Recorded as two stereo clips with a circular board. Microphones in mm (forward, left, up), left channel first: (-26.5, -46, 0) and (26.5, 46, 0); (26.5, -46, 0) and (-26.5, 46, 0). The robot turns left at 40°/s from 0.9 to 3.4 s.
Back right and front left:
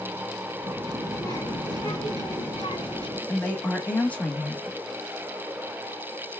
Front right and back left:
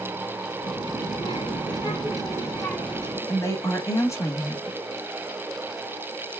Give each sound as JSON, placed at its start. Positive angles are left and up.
{"t": 0.6, "sound": "a child speaking", "azimuth_deg": -60, "distance_m": 1.6}
{"t": 3.3, "sound": "a woman speaking", "azimuth_deg": -50, "distance_m": 1.0}